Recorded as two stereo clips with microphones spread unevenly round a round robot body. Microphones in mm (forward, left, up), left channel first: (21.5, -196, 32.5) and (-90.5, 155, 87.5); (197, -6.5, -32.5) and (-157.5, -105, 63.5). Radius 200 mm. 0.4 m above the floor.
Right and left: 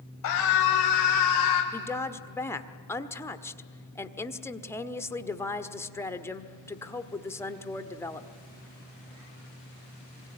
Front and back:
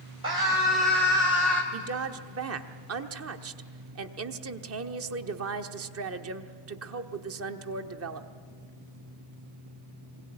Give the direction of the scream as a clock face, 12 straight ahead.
3 o'clock.